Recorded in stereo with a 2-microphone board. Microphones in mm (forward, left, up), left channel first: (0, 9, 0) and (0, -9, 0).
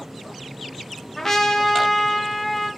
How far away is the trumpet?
About 0.6 m.